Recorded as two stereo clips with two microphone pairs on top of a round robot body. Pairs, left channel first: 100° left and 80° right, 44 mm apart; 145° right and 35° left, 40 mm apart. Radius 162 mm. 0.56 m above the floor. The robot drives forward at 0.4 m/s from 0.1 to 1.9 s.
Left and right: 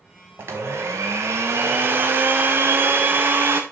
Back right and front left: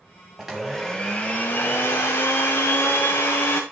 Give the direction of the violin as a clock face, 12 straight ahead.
I don't hear a violin.